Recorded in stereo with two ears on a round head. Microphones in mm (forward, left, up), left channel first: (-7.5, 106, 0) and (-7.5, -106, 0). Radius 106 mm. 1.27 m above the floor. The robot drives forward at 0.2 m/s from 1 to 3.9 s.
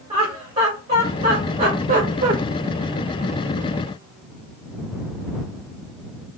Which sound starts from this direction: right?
Laughter, at 0.1 s.